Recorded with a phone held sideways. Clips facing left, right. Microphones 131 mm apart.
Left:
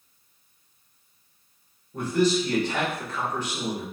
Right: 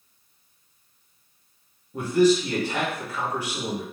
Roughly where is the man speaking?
Centre.